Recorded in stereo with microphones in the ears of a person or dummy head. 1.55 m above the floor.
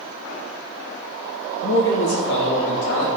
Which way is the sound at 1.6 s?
70° left (ahead or behind).